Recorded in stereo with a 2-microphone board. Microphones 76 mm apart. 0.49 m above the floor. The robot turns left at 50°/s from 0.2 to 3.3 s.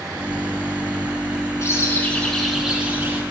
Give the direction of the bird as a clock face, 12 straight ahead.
11 o'clock.